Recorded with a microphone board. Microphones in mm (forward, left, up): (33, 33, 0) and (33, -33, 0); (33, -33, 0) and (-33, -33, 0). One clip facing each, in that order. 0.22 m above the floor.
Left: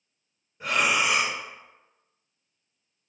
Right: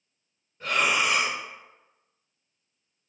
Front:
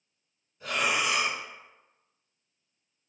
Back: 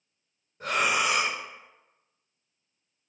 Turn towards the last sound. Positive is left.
turn(degrees=165)